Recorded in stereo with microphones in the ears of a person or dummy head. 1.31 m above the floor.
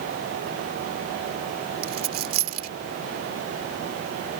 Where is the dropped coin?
50° right (ahead or behind).